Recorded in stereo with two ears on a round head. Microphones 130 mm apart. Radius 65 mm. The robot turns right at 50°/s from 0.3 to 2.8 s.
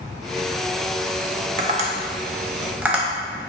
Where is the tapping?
55° right (ahead or behind), 0.6 m; by 3.5 s 10° right (ahead or behind), 0.6 m.